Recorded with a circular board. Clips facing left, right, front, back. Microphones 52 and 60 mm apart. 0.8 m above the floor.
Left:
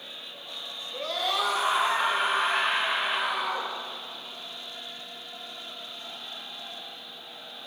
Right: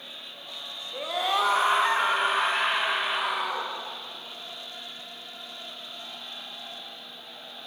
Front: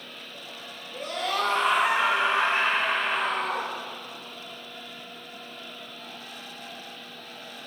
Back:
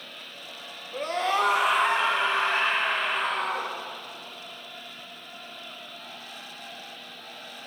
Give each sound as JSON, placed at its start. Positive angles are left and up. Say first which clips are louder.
{"t": 0.9, "sound": "a scream", "louder": "right 2 dB, back 3 dB", "azimuth_deg": -165, "distance_m": 1.5}